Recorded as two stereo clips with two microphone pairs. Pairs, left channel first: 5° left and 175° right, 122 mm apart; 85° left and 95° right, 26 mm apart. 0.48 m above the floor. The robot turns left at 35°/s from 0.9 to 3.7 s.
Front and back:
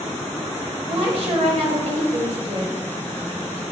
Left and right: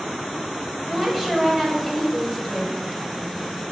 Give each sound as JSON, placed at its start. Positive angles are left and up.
{"t": 0.9, "sound": "a woman speaking", "azimuth_deg": -155, "distance_m": 2.5}